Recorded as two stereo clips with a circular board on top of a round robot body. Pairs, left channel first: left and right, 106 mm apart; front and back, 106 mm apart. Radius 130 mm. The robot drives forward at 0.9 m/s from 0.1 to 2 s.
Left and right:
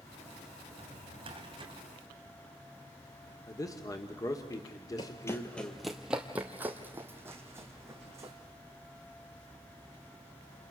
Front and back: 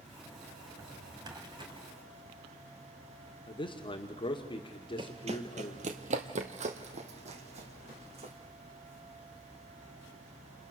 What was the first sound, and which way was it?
A drawer, 120° right.